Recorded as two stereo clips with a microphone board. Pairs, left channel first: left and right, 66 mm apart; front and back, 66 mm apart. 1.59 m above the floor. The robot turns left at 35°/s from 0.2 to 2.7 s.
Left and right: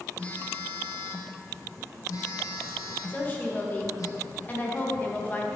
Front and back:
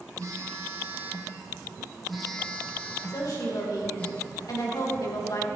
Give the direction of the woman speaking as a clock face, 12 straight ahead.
11 o'clock.